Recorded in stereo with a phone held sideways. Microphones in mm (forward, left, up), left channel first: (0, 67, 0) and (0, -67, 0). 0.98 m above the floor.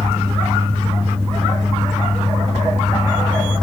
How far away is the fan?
About 1.7 m.